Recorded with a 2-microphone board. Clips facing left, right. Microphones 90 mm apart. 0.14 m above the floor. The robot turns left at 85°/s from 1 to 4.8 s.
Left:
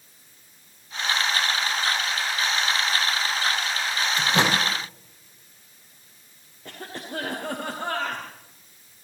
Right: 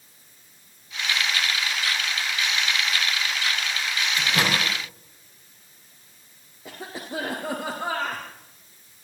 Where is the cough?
10° right (ahead or behind), 4.5 m.